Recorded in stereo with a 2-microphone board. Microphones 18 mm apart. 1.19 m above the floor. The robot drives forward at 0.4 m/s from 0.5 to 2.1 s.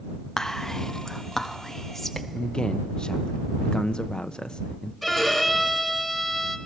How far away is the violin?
About 1.4 m.